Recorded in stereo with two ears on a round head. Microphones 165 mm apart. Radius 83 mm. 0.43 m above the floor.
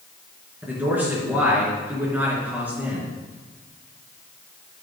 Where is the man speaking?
10° right (ahead or behind), 4.5 m.